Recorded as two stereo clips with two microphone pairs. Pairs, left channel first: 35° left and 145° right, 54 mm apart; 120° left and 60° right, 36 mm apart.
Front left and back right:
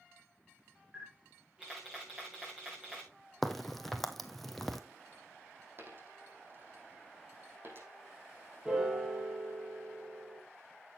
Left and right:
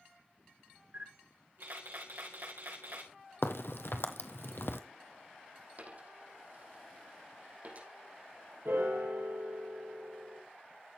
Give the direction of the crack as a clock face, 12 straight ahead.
8 o'clock.